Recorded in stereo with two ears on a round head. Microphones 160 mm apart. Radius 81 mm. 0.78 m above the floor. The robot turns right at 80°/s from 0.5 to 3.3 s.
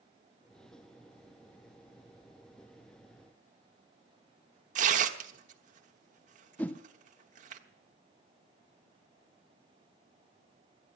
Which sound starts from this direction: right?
Tearing paper, at 4.8 s.